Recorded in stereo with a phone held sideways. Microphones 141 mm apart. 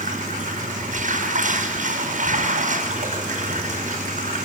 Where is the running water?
60° right (ahead or behind), 5.5 m.